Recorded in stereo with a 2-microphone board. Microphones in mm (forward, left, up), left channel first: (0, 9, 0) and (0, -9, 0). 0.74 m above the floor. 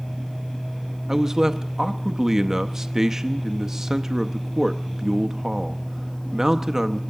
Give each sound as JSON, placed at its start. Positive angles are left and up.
{"t": 1.1, "sound": "a man speaking", "side_deg": -25, "distance_m": 0.6}